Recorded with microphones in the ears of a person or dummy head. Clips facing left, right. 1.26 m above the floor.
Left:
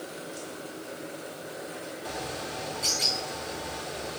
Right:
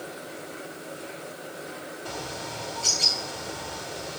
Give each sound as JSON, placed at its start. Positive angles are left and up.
{"t": 2.0, "sound": "a bird", "side_deg": 30, "distance_m": 2.5}